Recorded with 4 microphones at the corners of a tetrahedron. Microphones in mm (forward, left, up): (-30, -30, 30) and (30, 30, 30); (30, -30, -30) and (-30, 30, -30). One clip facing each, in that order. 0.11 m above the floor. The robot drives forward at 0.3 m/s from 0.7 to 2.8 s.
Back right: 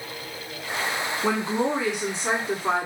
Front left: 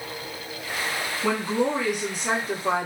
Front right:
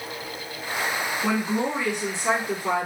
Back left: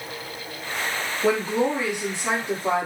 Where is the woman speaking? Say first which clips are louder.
Front left 1 dB, back left 4 dB; 165° right, 1.2 m; by 2.9 s 170° right, 1.5 m.